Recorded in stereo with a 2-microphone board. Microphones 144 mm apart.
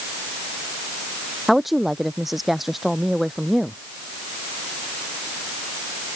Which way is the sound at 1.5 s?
Centre (ahead or behind).